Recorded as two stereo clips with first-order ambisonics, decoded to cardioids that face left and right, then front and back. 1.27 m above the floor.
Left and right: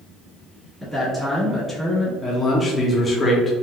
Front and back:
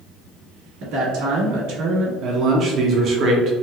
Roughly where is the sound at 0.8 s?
Behind.